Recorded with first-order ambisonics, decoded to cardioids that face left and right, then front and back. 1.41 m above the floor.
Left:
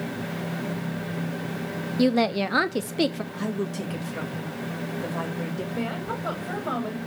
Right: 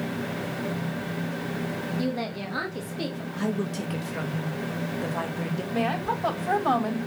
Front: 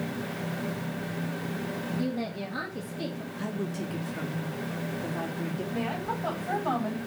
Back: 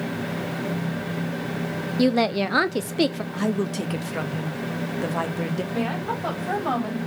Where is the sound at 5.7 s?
110° right, 4 m.